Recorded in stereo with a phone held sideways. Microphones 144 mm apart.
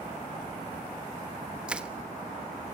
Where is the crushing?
5° right (ahead or behind), 1.0 m.